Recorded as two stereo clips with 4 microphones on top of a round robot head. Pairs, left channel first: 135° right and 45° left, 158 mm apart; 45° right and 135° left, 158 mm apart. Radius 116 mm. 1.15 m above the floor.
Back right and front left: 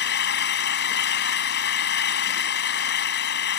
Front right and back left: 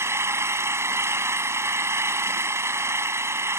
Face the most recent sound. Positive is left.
turn(degrees=-150)